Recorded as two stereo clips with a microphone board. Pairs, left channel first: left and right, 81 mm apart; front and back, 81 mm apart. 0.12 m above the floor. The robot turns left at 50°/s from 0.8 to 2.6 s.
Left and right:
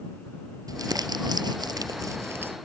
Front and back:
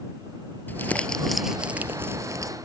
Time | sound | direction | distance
0.7 | crumpling | 65° right | ?